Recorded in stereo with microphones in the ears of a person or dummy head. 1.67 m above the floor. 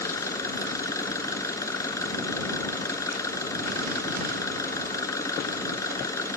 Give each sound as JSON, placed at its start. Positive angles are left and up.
{"t": 0.0, "sound": "an engine running", "side_deg": 15}